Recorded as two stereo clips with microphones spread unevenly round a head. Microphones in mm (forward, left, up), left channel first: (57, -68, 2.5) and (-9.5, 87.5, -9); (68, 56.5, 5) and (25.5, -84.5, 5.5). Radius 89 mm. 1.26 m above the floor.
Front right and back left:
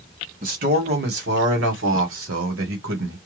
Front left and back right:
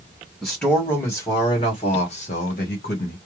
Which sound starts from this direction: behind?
A man speaking, at 0.4 s.